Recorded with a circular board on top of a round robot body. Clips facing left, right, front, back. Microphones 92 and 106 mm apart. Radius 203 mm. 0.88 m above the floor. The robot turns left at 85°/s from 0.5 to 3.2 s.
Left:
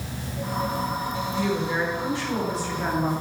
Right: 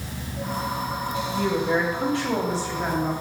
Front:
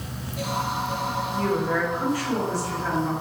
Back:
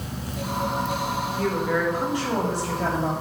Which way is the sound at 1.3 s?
40° right.